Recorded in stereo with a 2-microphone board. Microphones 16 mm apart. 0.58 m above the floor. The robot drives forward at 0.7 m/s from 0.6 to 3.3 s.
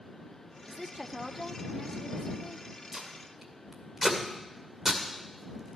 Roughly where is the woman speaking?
Centre.